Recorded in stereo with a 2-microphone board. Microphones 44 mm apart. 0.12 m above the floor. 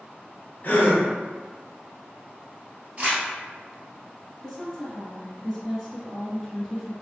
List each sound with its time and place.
0.6 s a gasp: 35° left (ahead or behind), 1.3 m
3.0 s crumpling: 30° right (ahead or behind), 1.7 m
4.4 s a woman speaking: 10° left (ahead or behind), 1.3 m